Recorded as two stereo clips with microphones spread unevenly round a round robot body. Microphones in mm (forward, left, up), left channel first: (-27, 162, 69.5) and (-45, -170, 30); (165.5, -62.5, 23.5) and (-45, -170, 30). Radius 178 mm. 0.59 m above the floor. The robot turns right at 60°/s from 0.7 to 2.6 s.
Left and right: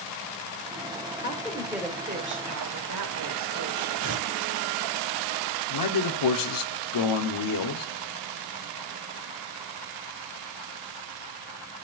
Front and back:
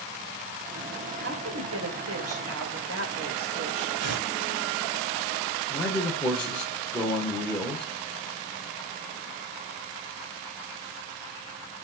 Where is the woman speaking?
150° left, 2.5 m; by 3.9 s 125° right, 2.5 m.